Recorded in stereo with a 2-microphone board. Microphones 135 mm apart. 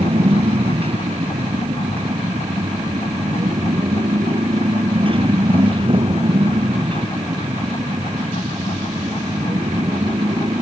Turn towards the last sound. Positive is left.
turn(degrees=-35)  # may be behind; listen again after turning